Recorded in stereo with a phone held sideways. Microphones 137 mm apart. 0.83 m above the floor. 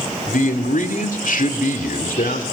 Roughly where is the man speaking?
Left.